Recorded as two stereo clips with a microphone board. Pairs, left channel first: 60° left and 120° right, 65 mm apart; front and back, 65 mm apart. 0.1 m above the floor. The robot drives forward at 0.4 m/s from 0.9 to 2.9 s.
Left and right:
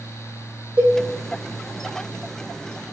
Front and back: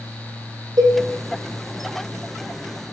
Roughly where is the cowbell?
Behind.